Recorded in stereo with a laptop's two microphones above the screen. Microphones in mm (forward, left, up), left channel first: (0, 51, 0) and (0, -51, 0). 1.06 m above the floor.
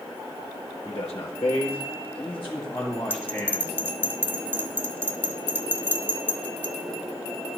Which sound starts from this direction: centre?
A bell, at 3.1 s.